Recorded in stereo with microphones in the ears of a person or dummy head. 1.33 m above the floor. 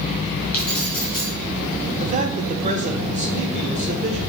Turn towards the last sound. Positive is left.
turn(degrees=-40)  # may be behind; listen again after turning